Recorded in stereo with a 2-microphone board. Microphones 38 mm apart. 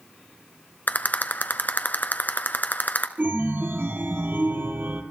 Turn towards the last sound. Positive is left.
turn(degrees=-60)  # may be behind; listen again after turning